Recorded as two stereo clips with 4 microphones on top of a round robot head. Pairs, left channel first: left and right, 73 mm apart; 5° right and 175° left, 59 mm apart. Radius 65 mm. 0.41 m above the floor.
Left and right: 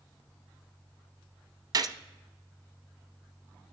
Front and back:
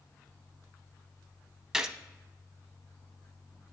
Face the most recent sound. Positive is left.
turn(degrees=-105)